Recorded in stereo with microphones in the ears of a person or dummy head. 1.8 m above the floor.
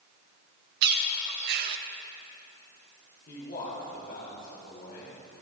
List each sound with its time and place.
0.8 s a bird: 65° right (ahead or behind), 0.8 m
3.3 s a man speaking: 55° left (ahead or behind), 4 m